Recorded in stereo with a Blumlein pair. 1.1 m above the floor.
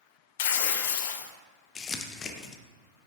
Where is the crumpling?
25° left, 0.8 m.